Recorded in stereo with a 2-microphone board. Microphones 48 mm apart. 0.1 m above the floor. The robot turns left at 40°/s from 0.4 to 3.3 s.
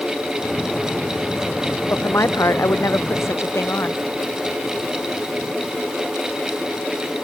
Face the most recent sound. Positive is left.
turn(degrees=65)